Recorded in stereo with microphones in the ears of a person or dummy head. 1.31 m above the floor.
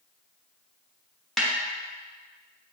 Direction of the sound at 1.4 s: 5° left (ahead or behind).